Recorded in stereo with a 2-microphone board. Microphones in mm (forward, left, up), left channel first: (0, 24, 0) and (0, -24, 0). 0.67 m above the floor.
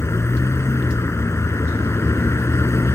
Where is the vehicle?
85° left.